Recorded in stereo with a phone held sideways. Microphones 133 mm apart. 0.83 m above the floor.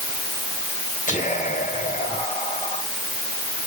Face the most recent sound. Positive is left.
turn(degrees=80)